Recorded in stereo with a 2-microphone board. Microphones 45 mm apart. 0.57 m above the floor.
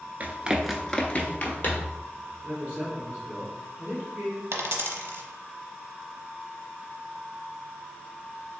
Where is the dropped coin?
65° right (ahead or behind), 0.7 m.